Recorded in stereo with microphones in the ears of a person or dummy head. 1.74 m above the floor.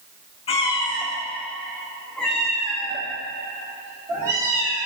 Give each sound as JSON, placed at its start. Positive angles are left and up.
{"t": 0.5, "sound": "a cat meowing", "side_deg": 35, "distance_m": 1.3}